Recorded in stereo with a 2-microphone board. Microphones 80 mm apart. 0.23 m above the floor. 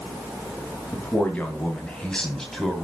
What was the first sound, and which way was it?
A man speaking, 20° left (ahead or behind).